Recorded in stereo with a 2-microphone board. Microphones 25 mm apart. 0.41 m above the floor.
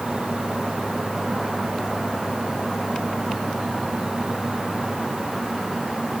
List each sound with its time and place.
Only background noise.